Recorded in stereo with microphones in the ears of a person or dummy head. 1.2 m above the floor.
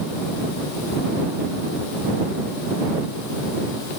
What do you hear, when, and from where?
Only background noise.